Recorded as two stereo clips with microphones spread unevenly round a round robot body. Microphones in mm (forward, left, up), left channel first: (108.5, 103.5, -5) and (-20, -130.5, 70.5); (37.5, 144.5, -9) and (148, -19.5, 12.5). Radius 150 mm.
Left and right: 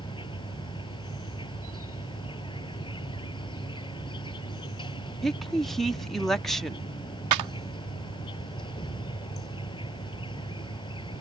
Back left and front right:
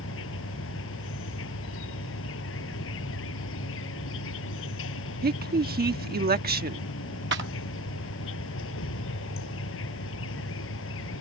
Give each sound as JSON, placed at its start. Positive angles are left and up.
{"t": 0.0, "sound": "an insect", "azimuth_deg": 135}
{"t": 5.2, "sound": "a woman speaking", "azimuth_deg": -20}
{"t": 7.3, "sound": "a clap", "azimuth_deg": -110}